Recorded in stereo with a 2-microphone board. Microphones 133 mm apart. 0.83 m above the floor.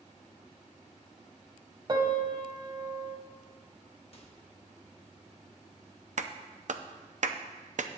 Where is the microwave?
50° left (ahead or behind), 1.2 m.